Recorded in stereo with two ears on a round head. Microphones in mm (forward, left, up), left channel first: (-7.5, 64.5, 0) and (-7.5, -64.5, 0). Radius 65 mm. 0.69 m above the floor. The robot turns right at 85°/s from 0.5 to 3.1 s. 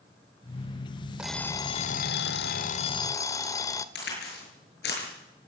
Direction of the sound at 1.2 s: 10° right.